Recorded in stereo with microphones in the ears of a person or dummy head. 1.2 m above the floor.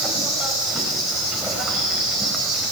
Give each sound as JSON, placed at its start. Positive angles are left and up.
{"t": 0.0, "sound": "an insect", "side_deg": 0, "distance_m": 4.0}